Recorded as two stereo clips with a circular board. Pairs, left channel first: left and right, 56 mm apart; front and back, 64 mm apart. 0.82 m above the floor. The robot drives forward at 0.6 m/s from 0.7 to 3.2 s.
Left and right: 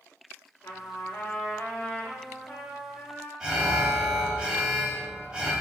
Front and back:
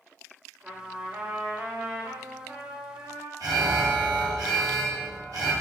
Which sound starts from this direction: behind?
An alarm, at 3.4 s.